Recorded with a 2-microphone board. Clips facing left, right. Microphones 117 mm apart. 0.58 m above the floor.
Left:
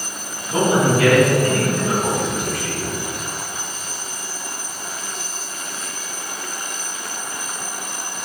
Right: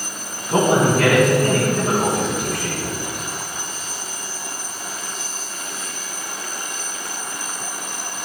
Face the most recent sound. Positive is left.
turn(degrees=-65)  # may be behind; listen again after turning